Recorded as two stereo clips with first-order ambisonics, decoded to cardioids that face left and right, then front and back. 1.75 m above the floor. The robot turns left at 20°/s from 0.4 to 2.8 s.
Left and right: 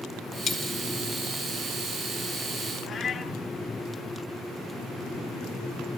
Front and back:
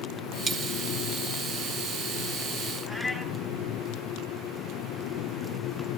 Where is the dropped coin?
130° left, 1.6 m; by 0.7 s 125° left, 1.6 m.